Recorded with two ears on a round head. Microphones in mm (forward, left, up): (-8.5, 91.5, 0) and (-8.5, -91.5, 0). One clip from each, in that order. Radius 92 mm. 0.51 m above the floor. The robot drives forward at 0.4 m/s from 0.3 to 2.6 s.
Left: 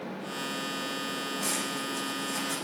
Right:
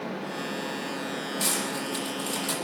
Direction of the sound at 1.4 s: 80° right.